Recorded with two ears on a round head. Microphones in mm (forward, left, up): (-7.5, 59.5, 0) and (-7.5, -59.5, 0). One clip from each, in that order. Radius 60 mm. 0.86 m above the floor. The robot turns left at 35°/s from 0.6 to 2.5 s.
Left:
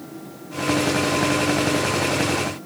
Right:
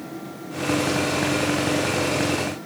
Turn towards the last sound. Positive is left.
No sound to turn to.